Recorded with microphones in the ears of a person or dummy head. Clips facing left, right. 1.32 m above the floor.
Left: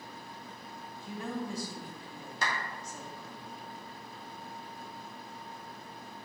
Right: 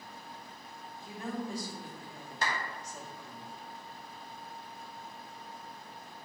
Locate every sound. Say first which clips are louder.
1.0 s a woman speaking: left 1 dB; 65° left (ahead or behind), 1.9 m
2.4 s a clap: right 1 dB; 85° left, 2 m